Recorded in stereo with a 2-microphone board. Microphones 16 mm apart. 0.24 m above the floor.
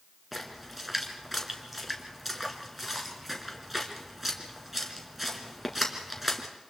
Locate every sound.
0.3 s a splash: 5° right (ahead or behind), 2.5 m